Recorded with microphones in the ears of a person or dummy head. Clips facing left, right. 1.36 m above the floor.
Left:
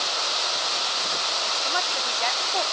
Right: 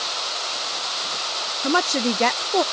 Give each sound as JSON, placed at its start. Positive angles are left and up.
{"t": 1.6, "sound": "a woman speaking", "side_deg": -60}